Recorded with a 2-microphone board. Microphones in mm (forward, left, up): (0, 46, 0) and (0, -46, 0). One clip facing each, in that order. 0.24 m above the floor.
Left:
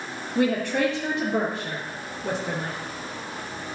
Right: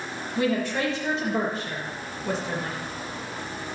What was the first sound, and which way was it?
A woman speaking, 60° left (ahead or behind).